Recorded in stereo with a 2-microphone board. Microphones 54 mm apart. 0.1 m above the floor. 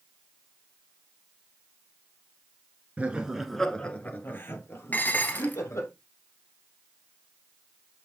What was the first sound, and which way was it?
Laughter, 25° right (ahead or behind).